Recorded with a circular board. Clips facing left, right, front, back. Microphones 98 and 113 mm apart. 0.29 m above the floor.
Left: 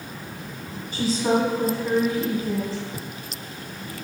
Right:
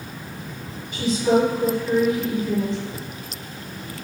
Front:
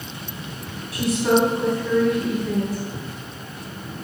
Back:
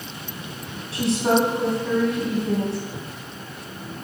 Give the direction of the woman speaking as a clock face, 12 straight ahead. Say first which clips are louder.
Right 3 dB, front 1 dB; 8 o'clock.